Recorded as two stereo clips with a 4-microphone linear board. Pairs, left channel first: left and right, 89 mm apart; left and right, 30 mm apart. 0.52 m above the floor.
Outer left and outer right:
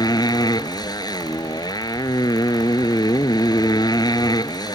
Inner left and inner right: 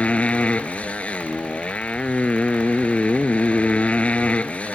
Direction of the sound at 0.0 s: 50° left (ahead or behind).